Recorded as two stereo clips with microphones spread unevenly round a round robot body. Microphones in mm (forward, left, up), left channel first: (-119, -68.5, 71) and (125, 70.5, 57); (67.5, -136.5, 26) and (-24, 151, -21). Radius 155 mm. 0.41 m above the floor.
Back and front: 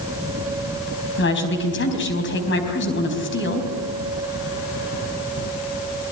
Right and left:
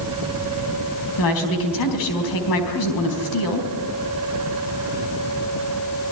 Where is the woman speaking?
100° right, 4 m.